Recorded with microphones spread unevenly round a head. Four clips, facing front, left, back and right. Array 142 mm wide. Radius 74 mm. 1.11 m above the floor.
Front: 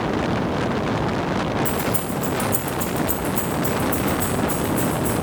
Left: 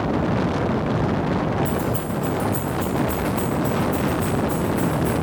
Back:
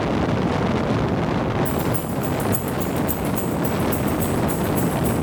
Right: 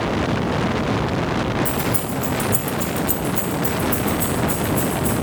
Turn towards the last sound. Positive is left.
turn(degrees=-140)